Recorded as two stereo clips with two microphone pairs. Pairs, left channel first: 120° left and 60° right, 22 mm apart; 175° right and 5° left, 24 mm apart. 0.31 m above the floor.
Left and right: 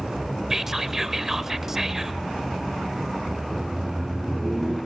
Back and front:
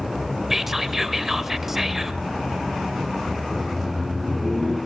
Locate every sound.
0.5 s whispering: 35° right, 1.0 m
3.4 s laughter: 25° right, 5 m